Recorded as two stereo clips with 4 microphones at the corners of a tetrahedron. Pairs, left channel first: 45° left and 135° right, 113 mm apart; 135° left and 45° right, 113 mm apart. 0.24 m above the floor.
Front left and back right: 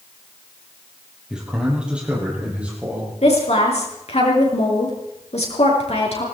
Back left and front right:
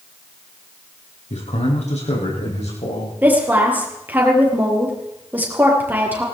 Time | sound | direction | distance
1.3 | a man speaking | 140° left | 7 m
3.2 | a woman speaking | 30° left | 5 m